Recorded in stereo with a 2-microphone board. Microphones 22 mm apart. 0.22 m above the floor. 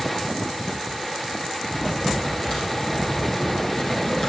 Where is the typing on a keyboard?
40° left (ahead or behind), 6 m.